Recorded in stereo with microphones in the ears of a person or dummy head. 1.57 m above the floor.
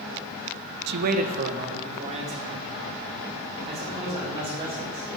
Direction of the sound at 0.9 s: 60° right (ahead or behind).